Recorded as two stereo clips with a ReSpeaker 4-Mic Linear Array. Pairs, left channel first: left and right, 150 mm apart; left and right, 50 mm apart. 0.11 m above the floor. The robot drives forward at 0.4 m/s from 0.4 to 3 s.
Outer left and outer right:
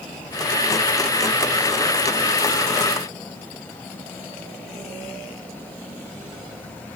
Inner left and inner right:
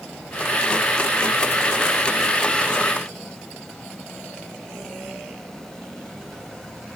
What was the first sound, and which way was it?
Only background noise.